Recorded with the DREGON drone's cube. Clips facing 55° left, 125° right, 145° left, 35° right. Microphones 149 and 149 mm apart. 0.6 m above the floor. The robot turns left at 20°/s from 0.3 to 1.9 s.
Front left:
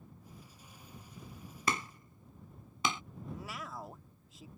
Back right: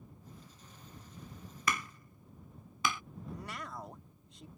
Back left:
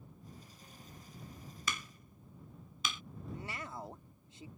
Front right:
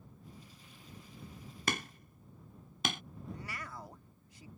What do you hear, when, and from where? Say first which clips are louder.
1.7 s hammering: front left 1 dB, front right 6 dB; 5° right; by 3.0 s 10° right
3.3 s a man speaking: even, back left 3 dB; 140° left